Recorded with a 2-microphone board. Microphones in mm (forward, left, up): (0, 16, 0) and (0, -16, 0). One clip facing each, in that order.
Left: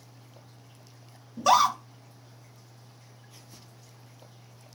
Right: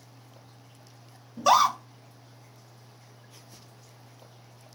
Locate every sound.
1.4 s a scream: centre (ahead or behind), 0.5 m